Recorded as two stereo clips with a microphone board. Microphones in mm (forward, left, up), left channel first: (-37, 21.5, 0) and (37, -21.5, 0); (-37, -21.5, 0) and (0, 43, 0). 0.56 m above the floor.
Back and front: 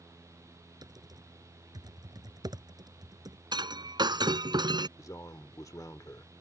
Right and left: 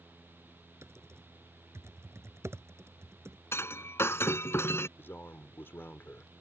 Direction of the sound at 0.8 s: 10° left.